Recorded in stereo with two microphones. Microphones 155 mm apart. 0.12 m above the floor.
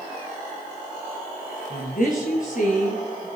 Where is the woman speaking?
60° left (ahead or behind), 2 m; by 3.3 s 50° left (ahead or behind), 2.5 m.